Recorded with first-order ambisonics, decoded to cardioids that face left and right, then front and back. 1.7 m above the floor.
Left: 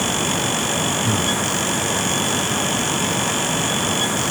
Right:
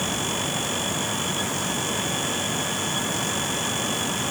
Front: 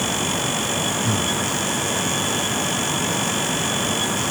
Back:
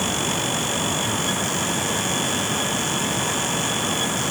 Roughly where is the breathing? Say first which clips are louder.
Left 6 dB, front 1 dB; ahead left.